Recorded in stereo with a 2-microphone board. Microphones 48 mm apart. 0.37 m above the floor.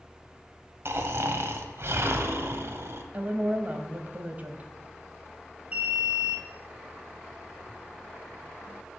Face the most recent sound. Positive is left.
turn(degrees=-30)  # may be behind; listen again after turning